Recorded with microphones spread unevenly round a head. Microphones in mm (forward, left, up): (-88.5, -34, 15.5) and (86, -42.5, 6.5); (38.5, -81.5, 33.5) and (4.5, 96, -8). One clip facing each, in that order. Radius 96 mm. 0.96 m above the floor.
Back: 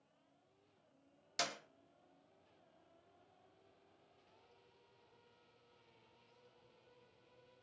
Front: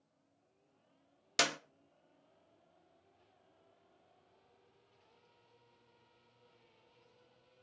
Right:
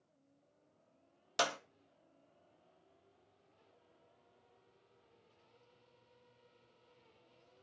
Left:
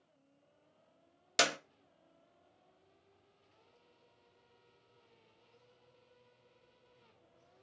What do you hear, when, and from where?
1.4 s a clap: 35° left, 0.6 m